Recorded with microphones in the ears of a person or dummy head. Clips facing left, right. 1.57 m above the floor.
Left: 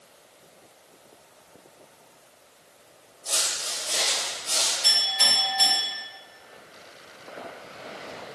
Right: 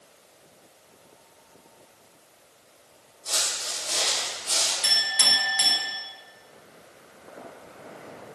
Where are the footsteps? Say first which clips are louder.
Left 1 dB; centre (ahead or behind), 1.8 m; by 4.7 s 25° right (ahead or behind), 2 m.